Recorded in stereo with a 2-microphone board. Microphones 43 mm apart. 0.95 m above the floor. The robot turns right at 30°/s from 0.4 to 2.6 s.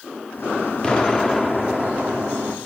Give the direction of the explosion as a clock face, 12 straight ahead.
7 o'clock.